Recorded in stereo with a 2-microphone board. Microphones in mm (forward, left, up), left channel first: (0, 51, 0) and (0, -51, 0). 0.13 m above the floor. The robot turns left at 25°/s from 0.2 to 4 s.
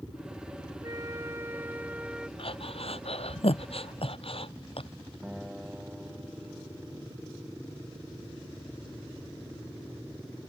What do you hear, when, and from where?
0.8 s a flute: 135° right; by 2.3 s 170° right
2.4 s breathing: 60° left (ahead or behind); by 4.9 s 65° left (ahead or behind)
5.2 s a guitar: 10° right (ahead or behind)